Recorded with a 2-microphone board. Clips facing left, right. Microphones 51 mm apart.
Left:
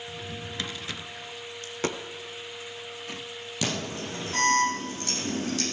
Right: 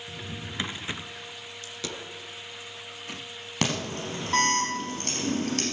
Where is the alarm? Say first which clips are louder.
Right 2 dB; 60° right (ahead or behind), 5 m.